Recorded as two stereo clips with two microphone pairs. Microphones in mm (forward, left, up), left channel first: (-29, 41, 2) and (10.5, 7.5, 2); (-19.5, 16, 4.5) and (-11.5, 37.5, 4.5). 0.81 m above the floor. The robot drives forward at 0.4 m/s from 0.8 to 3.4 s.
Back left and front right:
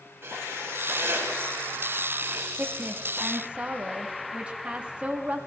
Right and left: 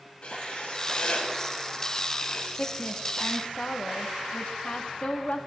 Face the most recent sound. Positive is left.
turn(degrees=-105)